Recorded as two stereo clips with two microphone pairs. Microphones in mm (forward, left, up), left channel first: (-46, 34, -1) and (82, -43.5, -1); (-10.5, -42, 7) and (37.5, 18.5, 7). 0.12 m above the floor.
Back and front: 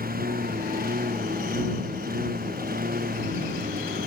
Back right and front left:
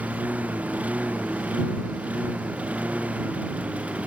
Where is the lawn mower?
20° right.